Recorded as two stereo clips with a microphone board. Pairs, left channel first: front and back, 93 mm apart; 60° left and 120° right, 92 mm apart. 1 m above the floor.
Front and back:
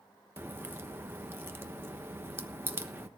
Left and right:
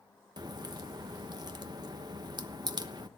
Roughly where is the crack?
Behind right.